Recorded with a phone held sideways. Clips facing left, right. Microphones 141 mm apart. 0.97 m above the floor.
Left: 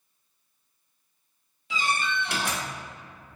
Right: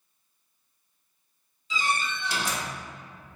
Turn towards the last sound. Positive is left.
turn(degrees=65)  # may be behind; listen again after turning